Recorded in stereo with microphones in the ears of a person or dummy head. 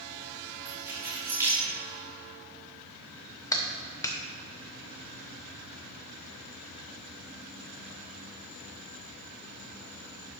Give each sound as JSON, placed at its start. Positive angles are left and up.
{"t": 0.7, "sound": "keys jangling", "side_deg": -10, "distance_m": 3.0}
{"t": 3.5, "sound": "a clap", "side_deg": 20, "distance_m": 0.7}